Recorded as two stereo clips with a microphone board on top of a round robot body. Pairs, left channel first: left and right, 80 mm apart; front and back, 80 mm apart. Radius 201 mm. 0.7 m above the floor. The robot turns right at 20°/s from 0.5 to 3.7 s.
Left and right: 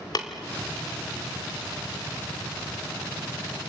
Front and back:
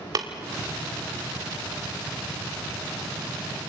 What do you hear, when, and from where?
0.1 s tapping: 130° left, 0.8 m